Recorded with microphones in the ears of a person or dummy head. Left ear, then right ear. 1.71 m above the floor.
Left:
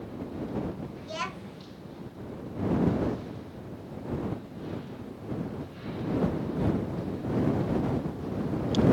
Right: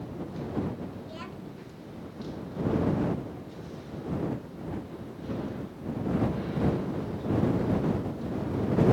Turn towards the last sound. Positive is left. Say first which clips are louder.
# left 6 dB
turn(degrees=40)  # may be behind; listen again after turning